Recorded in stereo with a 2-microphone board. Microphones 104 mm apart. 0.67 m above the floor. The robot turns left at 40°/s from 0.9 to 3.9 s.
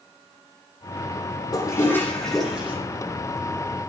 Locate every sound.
1.5 s a toilet flushing: 40° left, 9.5 m; by 2.8 s 10° right, 9.5 m